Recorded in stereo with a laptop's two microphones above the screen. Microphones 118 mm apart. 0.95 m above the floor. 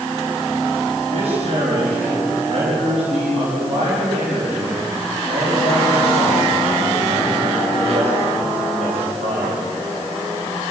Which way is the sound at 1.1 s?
70° right (ahead or behind).